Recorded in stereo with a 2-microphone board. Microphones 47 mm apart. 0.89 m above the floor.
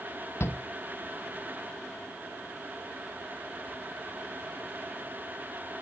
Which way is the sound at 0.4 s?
60° left (ahead or behind).